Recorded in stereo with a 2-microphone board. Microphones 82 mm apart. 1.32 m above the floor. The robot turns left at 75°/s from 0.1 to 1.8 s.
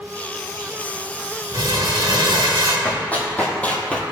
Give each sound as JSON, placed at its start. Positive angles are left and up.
{"t": 1.5, "sound": "crumpling", "side_deg": -65, "distance_m": 3.0}
{"t": 2.9, "sound": "running footsteps", "side_deg": 20, "distance_m": 2.5}